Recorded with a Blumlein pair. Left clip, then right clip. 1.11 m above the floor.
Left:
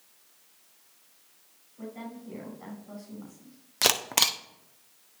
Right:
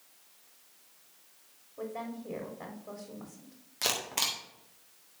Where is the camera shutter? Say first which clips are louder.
Left 7 dB; 65° left, 1.0 m.